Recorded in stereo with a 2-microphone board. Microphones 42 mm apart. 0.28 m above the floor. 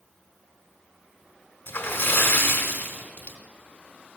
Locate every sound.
1.7 s a splash: 55° left (ahead or behind), 1.3 m